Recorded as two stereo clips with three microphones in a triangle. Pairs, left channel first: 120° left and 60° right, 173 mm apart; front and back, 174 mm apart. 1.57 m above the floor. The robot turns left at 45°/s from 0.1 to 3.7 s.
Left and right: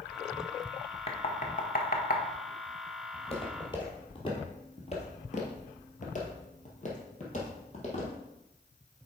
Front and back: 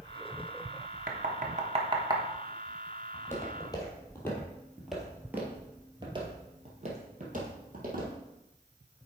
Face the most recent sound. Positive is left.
turn(degrees=165)